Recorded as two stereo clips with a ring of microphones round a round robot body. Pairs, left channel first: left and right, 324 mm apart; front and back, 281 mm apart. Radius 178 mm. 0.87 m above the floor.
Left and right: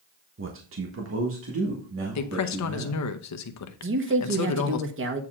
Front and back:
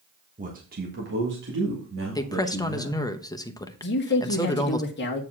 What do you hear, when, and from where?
0.4 s a man speaking: 125° right, 1.2 m; by 3.0 s 135° right, 3 m
2.1 s a woman speaking: 75° left, 1.0 m
3.8 s a man speaking: 45° right, 1.5 m